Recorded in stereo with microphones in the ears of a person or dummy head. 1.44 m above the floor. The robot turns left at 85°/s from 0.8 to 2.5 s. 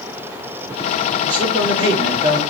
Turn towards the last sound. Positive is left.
turn(degrees=-160)